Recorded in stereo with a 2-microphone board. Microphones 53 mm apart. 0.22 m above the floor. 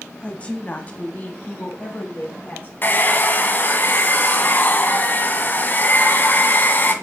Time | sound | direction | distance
0.2 | a woman speaking | 20° left (ahead or behind) | 1.1 m
2.8 | a hair dryer | 40° left (ahead or behind) | 1.3 m